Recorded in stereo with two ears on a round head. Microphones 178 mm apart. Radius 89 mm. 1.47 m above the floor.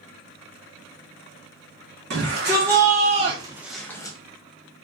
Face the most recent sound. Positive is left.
turn(degrees=20)  # may be behind; listen again after turning